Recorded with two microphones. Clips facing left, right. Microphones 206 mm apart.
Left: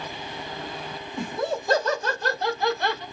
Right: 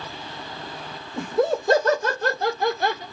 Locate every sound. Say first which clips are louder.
1.2 s laughter: right 6 dB; 65° right (ahead or behind), 2.5 m; by 3.0 s 50° right (ahead or behind), 2.0 m